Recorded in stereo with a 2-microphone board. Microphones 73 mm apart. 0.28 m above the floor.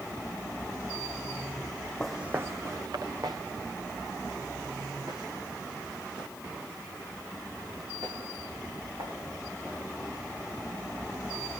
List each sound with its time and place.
2.0 s footsteps: 5° left (ahead or behind), 0.7 m; by 9.1 s 90° right, 9.5 m